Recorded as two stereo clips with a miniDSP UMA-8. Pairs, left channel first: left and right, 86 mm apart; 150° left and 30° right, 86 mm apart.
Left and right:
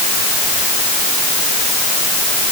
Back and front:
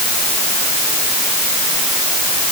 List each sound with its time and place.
Only background noise.